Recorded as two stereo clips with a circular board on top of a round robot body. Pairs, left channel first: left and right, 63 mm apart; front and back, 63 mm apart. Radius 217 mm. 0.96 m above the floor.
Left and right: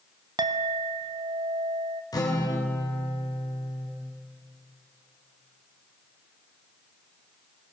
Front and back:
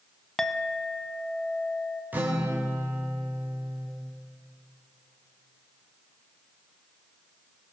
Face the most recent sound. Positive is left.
turn(degrees=115)